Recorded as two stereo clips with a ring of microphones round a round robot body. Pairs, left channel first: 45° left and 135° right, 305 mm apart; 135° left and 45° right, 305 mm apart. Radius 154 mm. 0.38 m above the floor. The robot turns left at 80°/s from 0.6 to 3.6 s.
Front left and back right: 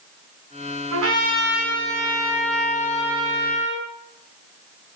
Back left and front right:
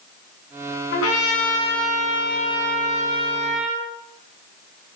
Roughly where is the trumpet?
Behind.